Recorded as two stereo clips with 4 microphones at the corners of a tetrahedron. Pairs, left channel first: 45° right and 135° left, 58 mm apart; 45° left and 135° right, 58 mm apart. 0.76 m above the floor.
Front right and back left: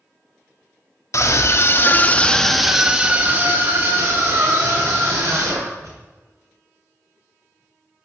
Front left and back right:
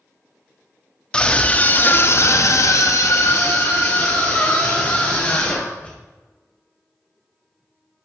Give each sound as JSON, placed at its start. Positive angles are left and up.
{"t": 1.1, "sound": "a scream", "azimuth_deg": -25, "distance_m": 1.1}